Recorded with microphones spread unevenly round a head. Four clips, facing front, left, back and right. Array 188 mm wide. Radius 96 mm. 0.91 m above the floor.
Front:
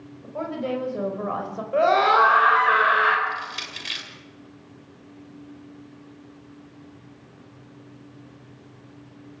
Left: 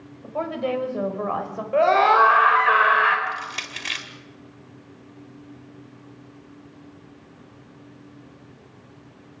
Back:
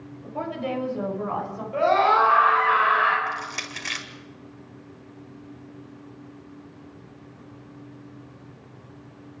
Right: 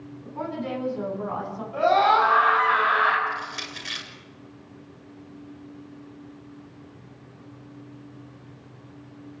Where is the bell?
No bell in this recording.